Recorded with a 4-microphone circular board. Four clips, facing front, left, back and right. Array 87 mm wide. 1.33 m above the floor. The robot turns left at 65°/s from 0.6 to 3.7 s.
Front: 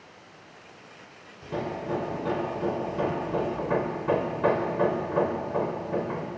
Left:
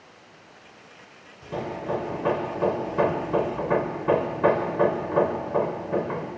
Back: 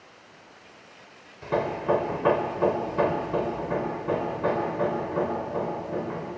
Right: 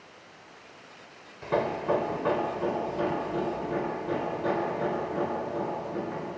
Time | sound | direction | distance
1.4 | hammering | 135° right | 2.5 m